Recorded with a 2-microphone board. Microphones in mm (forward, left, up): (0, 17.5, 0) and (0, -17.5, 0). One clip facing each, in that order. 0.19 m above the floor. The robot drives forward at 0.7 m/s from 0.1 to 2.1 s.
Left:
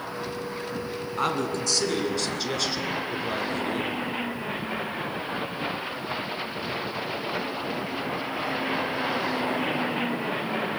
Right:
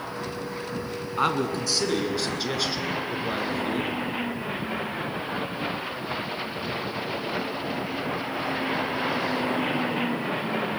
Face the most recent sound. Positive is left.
turn(degrees=-10)  # may be behind; listen again after turning